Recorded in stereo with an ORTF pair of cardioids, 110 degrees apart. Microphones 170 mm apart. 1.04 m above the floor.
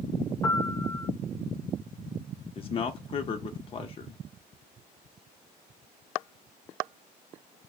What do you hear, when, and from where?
0.4 s a piano: 20° left, 1.0 m
2.5 s a man speaking: 35° left, 0.8 m